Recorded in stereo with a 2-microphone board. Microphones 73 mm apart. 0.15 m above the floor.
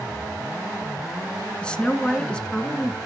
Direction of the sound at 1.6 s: 15° left (ahead or behind).